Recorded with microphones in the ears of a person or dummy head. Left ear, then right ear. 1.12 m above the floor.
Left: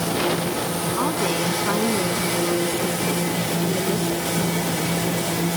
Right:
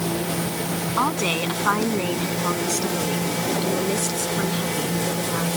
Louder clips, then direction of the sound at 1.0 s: Right 2 dB; 80° right.